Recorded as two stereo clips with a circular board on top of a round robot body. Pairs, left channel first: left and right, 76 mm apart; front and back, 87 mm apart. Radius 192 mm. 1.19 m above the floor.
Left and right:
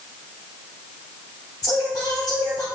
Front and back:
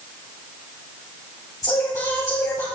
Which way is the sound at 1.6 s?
50° left.